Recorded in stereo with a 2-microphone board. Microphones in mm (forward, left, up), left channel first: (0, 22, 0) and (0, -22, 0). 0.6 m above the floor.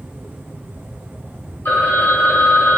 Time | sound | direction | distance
1.6 | a phone ringing | 65° left (ahead or behind) | 1.7 m